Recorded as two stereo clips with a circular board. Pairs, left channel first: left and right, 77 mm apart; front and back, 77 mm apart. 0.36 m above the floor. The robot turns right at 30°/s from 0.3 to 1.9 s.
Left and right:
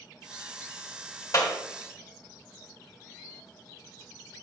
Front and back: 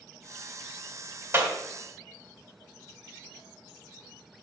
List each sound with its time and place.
1.3 s a clap: 130° left, 1.9 m; by 1.5 s 135° left, 1.9 m